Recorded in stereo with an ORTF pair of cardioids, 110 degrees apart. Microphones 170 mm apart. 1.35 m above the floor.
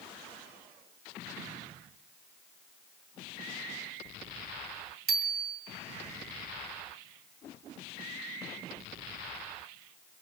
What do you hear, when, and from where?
5.1 s a bicycle bell: 65° right, 2 m